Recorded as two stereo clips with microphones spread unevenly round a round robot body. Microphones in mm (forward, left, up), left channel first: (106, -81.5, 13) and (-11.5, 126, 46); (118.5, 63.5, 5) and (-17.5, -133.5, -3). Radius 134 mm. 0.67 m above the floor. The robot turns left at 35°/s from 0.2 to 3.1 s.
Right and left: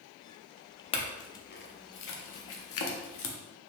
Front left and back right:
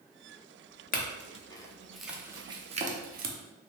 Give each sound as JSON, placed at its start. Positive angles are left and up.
{"t": 0.9, "sound": "a clink", "azimuth_deg": 0, "distance_m": 0.6}